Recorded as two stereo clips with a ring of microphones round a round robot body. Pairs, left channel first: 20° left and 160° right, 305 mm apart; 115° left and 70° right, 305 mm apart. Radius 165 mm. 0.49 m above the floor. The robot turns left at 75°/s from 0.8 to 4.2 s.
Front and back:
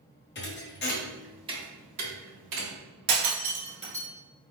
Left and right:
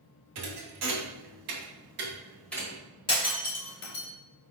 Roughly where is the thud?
Ahead right.